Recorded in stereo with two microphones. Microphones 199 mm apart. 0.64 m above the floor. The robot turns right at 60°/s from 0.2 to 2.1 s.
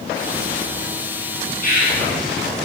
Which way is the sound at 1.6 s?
40° left (ahead or behind).